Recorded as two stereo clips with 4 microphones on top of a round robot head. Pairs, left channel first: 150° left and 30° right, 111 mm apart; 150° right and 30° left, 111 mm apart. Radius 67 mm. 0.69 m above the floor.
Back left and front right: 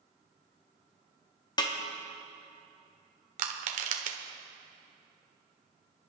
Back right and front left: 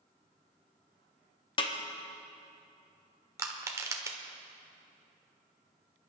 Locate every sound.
1.6 s a snare drum: 170° right, 1.3 m
3.4 s crushing: 30° right, 1.3 m